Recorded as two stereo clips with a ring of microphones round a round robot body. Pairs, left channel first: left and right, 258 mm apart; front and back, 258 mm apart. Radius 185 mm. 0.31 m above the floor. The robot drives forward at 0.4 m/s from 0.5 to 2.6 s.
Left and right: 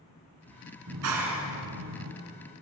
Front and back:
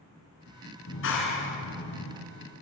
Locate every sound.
0.9 s a clap: 50° right, 3.5 m; by 2.1 s 60° right, 3 m